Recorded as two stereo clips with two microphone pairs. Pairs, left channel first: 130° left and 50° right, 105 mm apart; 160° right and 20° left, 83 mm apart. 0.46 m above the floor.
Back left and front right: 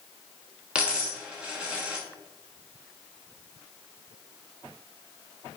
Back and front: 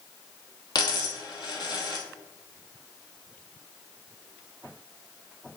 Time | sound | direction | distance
0.8 | a dropped coin | 130° right | 0.9 m